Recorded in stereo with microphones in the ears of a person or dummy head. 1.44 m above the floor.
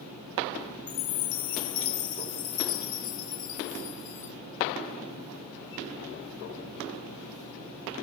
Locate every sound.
0.9 s a chime: 40° left (ahead or behind), 0.5 m